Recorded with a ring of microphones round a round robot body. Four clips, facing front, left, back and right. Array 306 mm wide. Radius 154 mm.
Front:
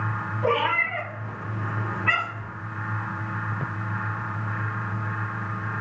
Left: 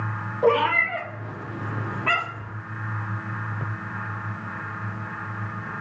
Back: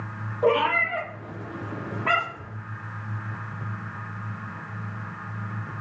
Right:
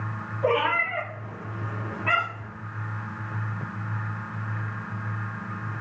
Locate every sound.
0.4 s a cat meowing: 130° left, 5.5 m; by 2.5 s 145° left, 5 m